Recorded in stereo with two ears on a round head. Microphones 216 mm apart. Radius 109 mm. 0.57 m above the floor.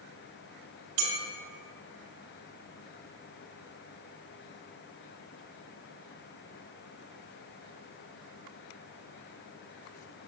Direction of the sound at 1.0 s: 65° right (ahead or behind).